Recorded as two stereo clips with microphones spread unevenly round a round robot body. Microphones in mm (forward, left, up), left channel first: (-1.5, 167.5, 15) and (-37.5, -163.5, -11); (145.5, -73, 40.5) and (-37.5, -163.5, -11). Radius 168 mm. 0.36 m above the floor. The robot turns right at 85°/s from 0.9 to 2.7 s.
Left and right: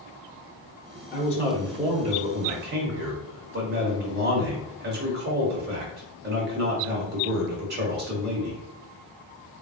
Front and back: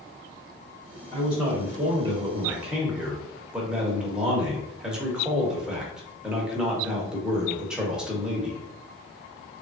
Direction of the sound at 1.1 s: 130° left.